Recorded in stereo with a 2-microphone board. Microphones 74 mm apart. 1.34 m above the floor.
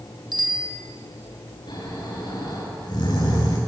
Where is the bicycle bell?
80° right, 3 m.